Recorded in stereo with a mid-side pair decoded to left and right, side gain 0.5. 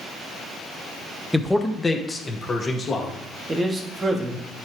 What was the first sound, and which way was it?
A man speaking, 5° right.